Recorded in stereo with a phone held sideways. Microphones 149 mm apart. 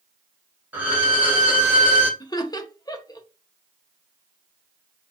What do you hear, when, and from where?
0.7 s a violin: 10° right (ahead or behind), 1.8 m
2.2 s laughter: 25° left (ahead or behind), 0.6 m